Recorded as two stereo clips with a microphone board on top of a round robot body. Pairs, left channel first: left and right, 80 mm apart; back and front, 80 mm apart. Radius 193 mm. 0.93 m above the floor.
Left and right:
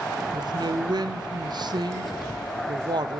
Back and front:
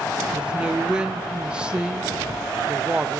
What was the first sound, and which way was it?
A man speaking, 80° right.